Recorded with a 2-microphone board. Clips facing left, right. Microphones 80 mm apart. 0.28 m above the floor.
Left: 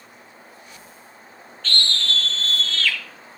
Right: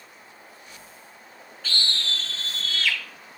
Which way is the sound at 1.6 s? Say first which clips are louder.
Left 4 dB; 10° right (ahead or behind).